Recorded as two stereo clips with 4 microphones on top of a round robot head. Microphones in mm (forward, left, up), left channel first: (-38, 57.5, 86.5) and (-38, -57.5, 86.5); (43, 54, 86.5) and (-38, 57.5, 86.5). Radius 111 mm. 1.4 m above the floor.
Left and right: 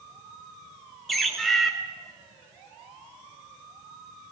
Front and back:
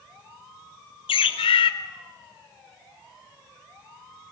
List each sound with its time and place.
1.1 s a bird: straight ahead, 1.2 m